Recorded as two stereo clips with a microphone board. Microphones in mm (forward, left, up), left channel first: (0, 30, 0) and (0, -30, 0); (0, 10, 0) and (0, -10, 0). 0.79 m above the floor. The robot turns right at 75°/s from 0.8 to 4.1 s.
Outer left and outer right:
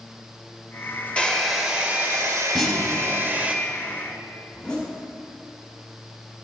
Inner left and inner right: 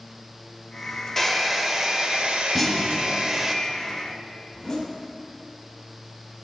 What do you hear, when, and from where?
1.2 s a hair dryer: 160° left, 0.7 m; by 3.5 s 20° right, 0.7 m
2.5 s a clunk: 10° left, 1.2 m; by 3.0 s 50° left, 1.2 m
4.5 s a zipper: 15° left (ahead or behind), 1.3 m